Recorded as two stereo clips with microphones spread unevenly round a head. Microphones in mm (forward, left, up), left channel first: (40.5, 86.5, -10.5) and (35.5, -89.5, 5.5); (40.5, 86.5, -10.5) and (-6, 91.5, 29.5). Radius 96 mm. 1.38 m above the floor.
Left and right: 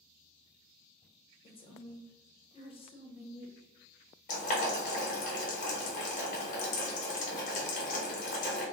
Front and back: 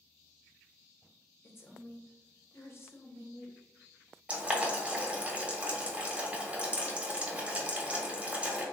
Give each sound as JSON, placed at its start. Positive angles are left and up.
{"t": 1.4, "sound": "a woman speaking", "azimuth_deg": 30, "distance_m": 1.0}
{"t": 4.3, "sound": "boiling", "azimuth_deg": 140, "distance_m": 1.0}